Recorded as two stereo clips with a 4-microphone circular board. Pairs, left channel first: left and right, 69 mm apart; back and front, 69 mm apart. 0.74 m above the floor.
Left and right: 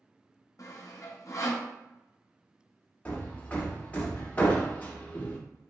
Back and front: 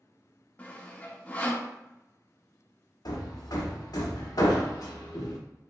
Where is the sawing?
120° left, 0.5 m.